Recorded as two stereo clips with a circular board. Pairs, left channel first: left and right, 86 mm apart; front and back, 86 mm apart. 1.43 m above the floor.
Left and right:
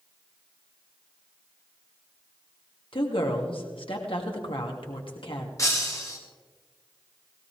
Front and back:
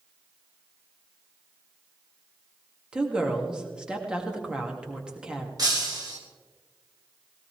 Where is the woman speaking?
100° left, 2.5 m.